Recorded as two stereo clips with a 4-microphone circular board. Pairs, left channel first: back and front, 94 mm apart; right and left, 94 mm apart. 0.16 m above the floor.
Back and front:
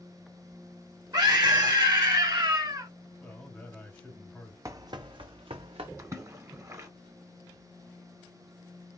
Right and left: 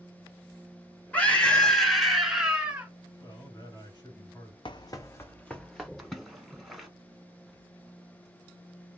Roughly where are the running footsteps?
Ahead right.